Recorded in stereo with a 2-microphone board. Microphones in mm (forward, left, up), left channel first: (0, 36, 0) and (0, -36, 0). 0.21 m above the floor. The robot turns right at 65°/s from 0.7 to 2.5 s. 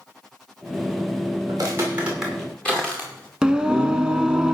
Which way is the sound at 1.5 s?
55° right (ahead or behind).